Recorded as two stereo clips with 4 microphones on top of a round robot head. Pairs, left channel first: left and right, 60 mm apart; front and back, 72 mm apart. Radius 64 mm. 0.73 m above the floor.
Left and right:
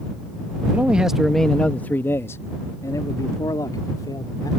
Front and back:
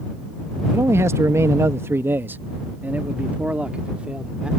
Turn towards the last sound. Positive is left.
turn(degrees=105)